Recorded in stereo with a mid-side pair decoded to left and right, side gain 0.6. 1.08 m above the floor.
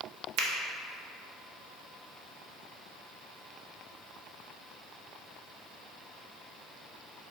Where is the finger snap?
65° right, 0.7 m.